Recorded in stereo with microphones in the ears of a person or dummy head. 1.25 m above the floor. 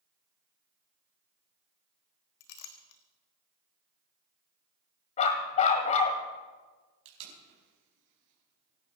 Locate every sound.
2.4 s a clink: 60° left (ahead or behind), 1.3 m
5.2 s a dog barking: 40° left (ahead or behind), 1.5 m
7.0 s tape being pulled: 70° right (ahead or behind), 4.5 m